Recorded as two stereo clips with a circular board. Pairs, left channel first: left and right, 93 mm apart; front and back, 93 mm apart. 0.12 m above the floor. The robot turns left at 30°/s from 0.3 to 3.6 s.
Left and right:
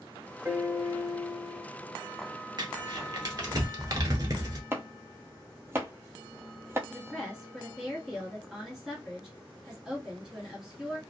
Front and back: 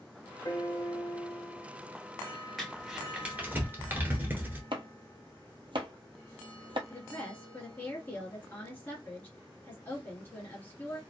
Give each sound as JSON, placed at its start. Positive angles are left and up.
{"t": 0.5, "sound": "a piano", "azimuth_deg": -30, "distance_m": 0.9}
{"t": 2.6, "sound": "crumpling", "azimuth_deg": -90, "distance_m": 1.0}
{"t": 4.7, "sound": "chopping", "azimuth_deg": -155, "distance_m": 0.5}
{"t": 6.9, "sound": "a woman speaking", "azimuth_deg": -10, "distance_m": 1.5}